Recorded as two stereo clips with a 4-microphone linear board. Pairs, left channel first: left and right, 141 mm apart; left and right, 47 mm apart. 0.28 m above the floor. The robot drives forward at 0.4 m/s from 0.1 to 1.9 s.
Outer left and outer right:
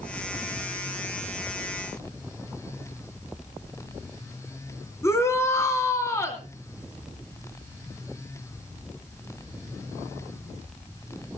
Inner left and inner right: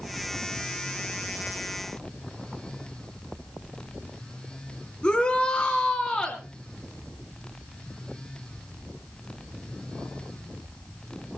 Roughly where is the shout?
Centre.